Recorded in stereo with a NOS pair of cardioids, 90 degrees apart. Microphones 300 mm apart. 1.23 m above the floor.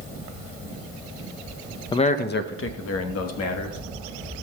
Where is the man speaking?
15° left, 0.7 m; by 3.8 s 65° left, 1.9 m.